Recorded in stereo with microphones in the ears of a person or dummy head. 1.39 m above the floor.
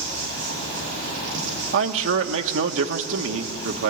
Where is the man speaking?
65° right (ahead or behind), 1.8 m.